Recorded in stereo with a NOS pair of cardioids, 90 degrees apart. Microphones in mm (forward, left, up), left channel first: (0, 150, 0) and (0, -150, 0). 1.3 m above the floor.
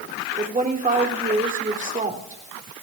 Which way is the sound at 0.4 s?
25° right.